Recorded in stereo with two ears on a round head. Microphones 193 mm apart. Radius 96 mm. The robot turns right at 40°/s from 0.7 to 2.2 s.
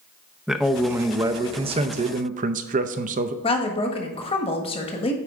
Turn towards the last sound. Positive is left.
turn(degrees=25)  # may be behind; listen again after turning